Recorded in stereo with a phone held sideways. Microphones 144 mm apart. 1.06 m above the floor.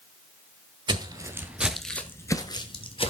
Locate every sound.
0.9 s footsteps: 30° right (ahead or behind), 1.2 m; by 3.1 s 40° left (ahead or behind), 1.5 m